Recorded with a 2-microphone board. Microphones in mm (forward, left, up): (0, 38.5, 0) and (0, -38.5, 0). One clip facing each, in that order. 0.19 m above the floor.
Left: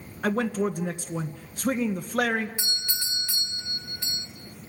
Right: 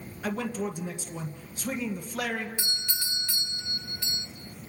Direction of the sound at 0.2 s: 55° left (ahead or behind).